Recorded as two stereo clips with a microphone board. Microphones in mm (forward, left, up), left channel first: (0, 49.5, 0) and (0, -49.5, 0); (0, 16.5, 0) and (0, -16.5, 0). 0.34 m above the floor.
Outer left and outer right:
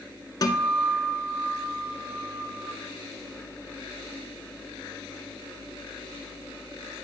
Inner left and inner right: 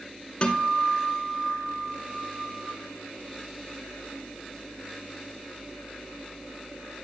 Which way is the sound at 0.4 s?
40° left (ahead or behind).